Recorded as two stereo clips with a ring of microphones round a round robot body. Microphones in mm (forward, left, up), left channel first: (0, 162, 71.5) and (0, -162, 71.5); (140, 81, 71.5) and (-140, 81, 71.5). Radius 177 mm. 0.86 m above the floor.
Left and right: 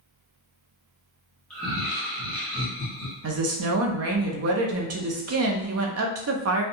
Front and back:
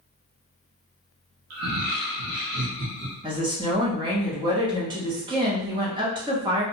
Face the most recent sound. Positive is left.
turn(degrees=-110)